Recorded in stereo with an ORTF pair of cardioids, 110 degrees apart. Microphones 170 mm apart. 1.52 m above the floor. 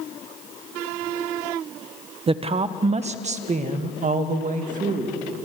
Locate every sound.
2.3 s a woman speaking: 35° right, 1.3 m; by 5.3 s 50° right, 3 m